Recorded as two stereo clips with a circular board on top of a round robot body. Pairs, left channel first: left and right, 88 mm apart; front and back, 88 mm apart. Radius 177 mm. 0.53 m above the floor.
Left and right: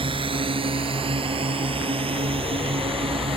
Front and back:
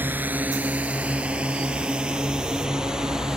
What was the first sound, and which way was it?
A drone, 110° right.